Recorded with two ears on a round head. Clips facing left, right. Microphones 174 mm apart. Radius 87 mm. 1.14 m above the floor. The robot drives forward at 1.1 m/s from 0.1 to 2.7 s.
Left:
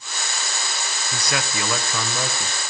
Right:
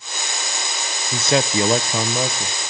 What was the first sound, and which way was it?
A man speaking, 20° right (ahead or behind).